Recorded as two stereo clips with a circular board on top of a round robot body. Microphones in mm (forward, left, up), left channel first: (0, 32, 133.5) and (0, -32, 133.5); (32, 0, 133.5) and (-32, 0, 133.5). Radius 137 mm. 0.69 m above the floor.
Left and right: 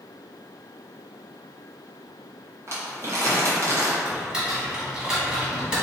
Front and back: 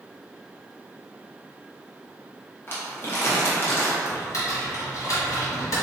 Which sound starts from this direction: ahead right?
Crumpling, at 2.7 s.